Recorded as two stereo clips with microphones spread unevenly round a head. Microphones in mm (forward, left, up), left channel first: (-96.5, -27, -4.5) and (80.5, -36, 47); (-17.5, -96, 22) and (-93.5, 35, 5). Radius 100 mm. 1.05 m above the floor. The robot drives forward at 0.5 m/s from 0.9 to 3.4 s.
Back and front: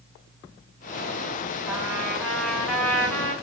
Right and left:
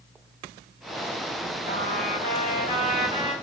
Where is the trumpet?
90° right, 4 m; by 3.3 s 100° right, 4 m.